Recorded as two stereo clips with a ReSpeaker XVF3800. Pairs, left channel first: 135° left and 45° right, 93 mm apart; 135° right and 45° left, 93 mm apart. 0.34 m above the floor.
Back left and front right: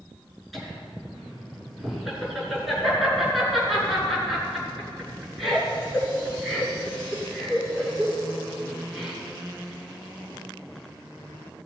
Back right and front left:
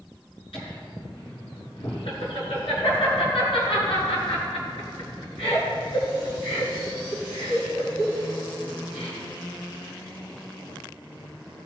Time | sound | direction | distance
0.5 | laughter | 135° right | 5 m